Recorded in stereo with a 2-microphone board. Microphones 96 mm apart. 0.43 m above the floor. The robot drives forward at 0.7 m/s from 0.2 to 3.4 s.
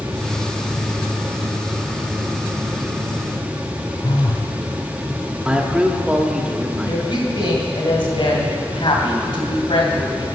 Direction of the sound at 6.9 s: 70° left (ahead or behind).